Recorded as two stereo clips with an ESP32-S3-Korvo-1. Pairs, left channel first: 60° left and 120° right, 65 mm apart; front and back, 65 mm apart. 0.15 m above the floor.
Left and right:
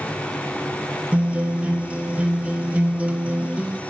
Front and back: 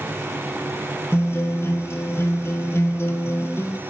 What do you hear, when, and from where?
1.1 s a guitar: 50° right, 1.1 m